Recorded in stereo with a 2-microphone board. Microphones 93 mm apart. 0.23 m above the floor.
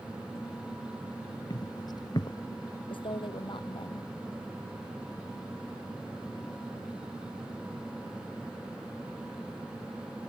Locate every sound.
1.5 s footsteps: 45° left (ahead or behind)
2.9 s a woman speaking: 60° left (ahead or behind)